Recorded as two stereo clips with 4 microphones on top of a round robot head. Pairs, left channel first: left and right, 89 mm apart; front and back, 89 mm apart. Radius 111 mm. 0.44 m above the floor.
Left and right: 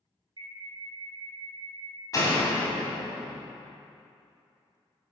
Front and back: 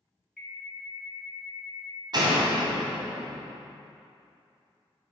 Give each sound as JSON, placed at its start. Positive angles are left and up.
{"t": 0.4, "sound": "an alarm", "azimuth_deg": -95, "distance_m": 1.9}
{"t": 2.1, "sound": "a door slam", "azimuth_deg": 140, "distance_m": 2.5}